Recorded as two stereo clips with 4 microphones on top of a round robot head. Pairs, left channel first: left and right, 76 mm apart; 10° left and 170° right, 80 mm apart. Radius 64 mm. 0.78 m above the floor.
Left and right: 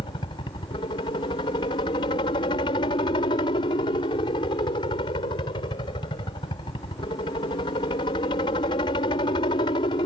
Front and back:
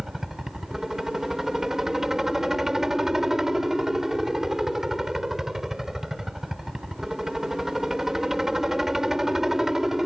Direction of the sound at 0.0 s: 105° left.